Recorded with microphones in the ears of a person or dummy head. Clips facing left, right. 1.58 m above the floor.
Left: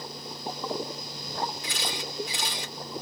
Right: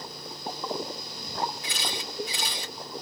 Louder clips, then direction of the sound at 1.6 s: Left 1 dB; 60° right (ahead or behind).